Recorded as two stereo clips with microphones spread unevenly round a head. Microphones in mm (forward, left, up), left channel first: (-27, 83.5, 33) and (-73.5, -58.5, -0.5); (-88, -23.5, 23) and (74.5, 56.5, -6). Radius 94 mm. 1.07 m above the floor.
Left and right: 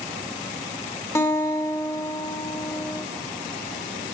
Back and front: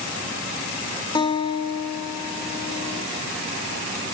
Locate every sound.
1.1 s a guitar: 140° left, 1.6 m